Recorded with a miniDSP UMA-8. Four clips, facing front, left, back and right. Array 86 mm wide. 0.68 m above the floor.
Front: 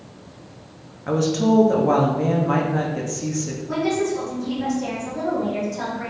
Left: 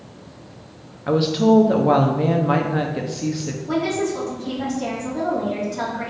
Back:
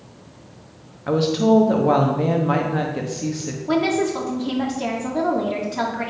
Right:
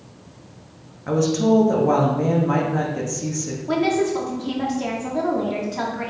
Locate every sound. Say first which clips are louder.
1.1 s a woman speaking: left 2 dB, back 2 dB; 115° left, 0.9 m
3.7 s a woman speaking: right 2 dB, back 3 dB; 155° right, 1.5 m